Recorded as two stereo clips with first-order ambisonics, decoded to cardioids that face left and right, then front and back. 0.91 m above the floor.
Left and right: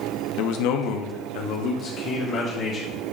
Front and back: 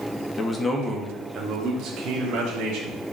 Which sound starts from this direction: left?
A man speaking, at 0.4 s.